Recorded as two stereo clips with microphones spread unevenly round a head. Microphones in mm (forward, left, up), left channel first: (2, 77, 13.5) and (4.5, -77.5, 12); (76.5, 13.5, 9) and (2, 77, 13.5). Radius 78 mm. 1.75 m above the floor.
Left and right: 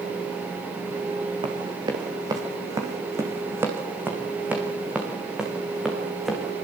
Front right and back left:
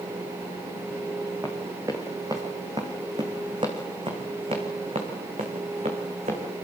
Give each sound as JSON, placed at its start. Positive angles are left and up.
{"t": 1.4, "sound": "running footsteps", "azimuth_deg": -150, "distance_m": 4.0}